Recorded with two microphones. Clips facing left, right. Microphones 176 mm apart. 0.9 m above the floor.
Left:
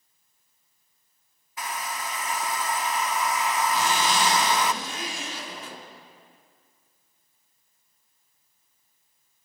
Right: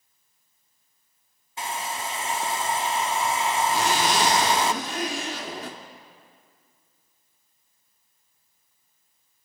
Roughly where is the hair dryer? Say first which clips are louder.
Right 2 dB; right.